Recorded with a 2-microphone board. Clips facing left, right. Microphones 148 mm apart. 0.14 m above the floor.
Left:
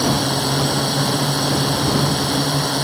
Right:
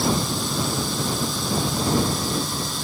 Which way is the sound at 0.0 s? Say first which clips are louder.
Left 5 dB; 70° left (ahead or behind).